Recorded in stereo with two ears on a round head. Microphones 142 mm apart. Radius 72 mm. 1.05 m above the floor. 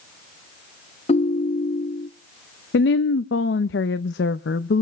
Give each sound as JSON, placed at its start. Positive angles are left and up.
{"t": 1.1, "sound": "a ringtone", "side_deg": 35, "distance_m": 0.6}
{"t": 2.7, "sound": "a woman speaking", "side_deg": 70, "distance_m": 0.6}